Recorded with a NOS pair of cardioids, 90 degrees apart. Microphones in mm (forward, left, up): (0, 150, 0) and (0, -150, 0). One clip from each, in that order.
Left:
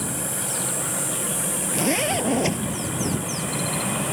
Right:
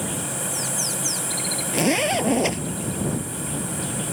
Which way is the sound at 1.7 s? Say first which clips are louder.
Right 2 dB; 25° right.